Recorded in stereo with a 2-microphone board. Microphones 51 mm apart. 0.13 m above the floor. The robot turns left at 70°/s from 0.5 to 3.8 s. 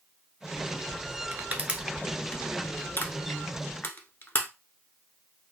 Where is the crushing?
40° right (ahead or behind), 0.8 m; by 4.5 s 45° left (ahead or behind), 0.8 m.